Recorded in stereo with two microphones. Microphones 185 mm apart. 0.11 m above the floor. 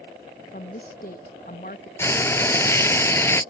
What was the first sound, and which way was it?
A woman speaking, 50° left (ahead or behind).